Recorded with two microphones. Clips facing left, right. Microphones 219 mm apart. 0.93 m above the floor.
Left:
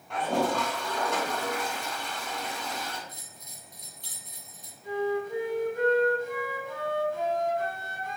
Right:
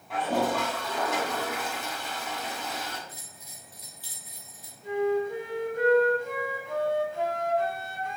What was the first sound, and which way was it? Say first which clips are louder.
A toilet flushing: even; 5° right (ahead or behind).